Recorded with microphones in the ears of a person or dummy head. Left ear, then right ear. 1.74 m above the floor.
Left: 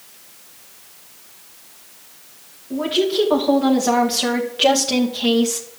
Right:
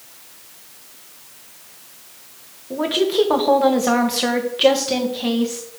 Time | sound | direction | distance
2.7 | a woman speaking | 35° right (ahead or behind) | 3 m